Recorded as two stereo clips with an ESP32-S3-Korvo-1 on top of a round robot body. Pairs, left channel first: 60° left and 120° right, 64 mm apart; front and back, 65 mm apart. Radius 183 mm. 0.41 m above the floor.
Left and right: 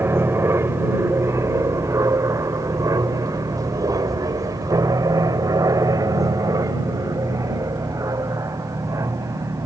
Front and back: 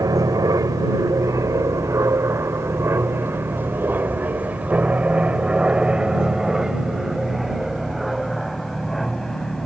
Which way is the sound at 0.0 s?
170° right.